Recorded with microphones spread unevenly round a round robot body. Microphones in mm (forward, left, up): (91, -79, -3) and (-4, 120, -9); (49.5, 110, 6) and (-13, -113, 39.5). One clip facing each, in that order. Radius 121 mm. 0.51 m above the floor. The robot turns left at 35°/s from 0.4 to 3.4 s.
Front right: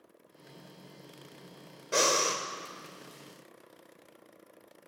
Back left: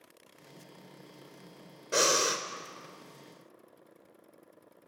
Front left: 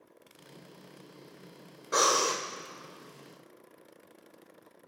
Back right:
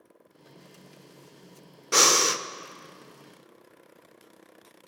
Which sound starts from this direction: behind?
Breathing, at 1.9 s.